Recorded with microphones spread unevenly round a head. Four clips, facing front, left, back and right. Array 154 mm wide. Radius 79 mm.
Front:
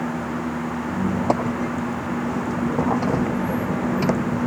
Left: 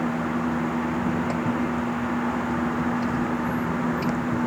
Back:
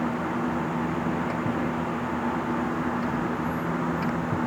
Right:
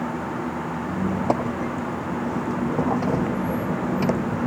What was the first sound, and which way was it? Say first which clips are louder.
A squeak: right 2 dB, front 5 dB; 35° right.